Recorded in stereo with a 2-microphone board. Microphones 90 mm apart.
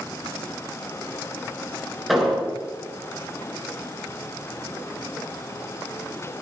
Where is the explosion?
Centre (ahead or behind), 9.5 m.